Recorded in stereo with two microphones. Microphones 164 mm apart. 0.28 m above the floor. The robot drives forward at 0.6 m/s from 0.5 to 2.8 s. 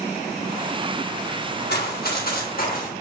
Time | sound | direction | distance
1.7 | running footsteps | 85° left | 3 m